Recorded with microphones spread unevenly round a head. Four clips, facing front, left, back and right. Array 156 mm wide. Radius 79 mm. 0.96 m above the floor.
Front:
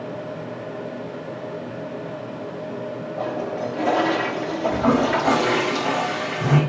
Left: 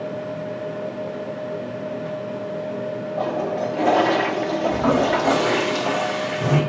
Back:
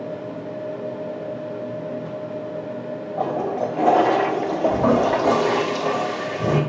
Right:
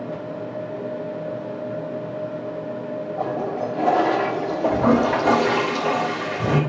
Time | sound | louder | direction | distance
3.2 | a toilet flushing | left 2 dB, back 4 dB | 170° left | 1.0 m
4.6 | a toilet flushing | right 2 dB, back 1 dB | 150° right | 3.5 m